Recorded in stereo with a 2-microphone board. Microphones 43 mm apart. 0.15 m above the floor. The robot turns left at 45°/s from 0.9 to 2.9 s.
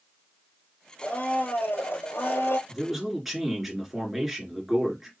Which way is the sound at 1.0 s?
150° left.